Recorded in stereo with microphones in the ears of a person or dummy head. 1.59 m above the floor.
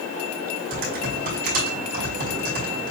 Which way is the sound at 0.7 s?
45° right (ahead or behind).